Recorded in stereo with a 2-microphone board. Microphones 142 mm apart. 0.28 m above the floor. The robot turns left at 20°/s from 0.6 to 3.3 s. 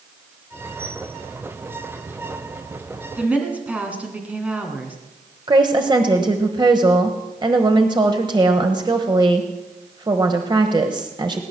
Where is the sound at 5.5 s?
35° right (ahead or behind), 1.2 m.